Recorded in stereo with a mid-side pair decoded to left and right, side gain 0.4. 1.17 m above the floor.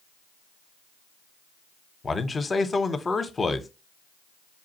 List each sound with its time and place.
2.0 s a man speaking: 35° left, 0.9 m